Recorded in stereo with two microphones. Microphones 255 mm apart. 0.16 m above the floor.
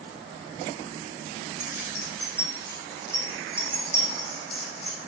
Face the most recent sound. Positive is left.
turn(degrees=40)  # may be behind; listen again after turning